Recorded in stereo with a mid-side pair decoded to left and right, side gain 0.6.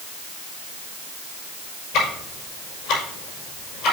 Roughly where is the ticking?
Ahead left.